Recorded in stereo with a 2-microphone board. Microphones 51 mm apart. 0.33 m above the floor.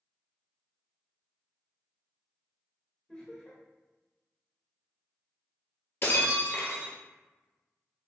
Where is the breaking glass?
50° left (ahead or behind), 1.0 m.